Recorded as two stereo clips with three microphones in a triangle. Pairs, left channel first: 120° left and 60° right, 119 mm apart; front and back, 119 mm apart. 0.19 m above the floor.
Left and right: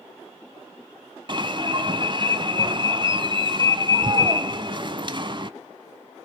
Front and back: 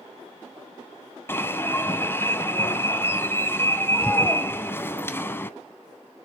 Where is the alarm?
65° right, 0.9 m.